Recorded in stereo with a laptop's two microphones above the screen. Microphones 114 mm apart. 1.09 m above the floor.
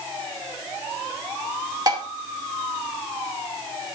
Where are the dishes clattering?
35° right (ahead or behind), 1.6 m.